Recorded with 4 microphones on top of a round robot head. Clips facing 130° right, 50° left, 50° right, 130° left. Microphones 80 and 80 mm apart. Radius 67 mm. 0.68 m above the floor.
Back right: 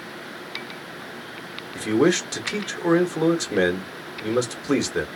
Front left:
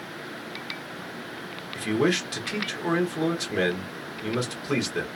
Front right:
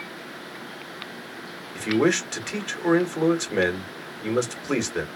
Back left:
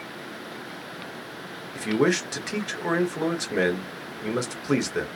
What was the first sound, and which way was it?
A man speaking, 155° right.